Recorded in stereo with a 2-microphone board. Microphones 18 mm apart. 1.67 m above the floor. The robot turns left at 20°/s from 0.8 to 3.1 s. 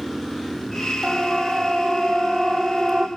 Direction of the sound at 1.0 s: 20° right (ahead or behind).